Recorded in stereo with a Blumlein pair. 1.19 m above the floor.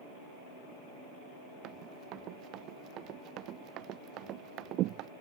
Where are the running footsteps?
35° right.